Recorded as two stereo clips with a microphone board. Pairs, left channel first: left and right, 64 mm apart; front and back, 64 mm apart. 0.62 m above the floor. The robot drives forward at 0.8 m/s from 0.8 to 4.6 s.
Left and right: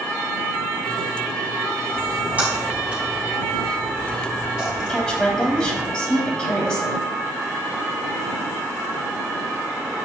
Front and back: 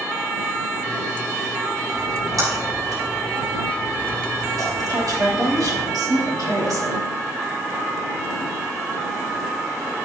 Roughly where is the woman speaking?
Behind.